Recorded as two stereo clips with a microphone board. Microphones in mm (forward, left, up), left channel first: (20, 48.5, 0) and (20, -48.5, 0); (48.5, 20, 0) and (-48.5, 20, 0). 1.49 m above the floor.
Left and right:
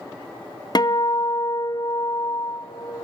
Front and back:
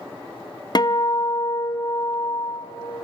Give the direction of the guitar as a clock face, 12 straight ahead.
10 o'clock.